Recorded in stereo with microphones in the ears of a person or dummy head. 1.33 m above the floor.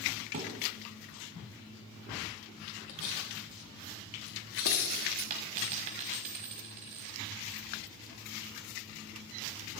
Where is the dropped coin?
35° right (ahead or behind), 1.4 m.